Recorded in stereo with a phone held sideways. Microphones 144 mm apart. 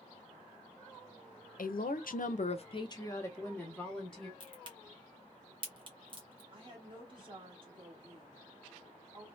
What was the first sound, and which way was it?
A woman speaking, 75° left (ahead or behind).